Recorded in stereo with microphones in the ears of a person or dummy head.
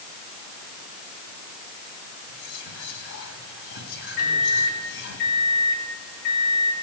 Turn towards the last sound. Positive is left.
turn(degrees=80)